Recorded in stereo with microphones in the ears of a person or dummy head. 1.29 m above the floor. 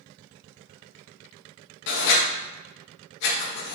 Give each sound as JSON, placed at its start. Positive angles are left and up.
{"t": 1.9, "sound": "writing", "side_deg": 60, "distance_m": 1.8}